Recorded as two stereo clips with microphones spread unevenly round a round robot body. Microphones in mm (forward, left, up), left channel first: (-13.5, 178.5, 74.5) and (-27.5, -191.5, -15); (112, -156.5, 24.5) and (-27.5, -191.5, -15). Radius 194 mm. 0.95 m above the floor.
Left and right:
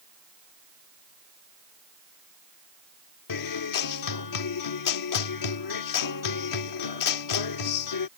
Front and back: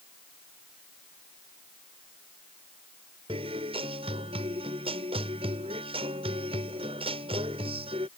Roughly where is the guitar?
Behind left.